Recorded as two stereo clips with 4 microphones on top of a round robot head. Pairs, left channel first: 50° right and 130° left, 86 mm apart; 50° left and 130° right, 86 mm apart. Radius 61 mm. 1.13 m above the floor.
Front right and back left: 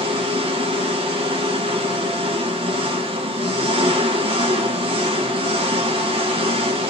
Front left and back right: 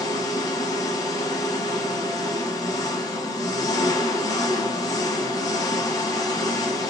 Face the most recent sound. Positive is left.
turn(degrees=100)